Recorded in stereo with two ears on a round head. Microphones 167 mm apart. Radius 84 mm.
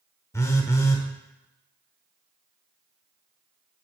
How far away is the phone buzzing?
About 0.8 m.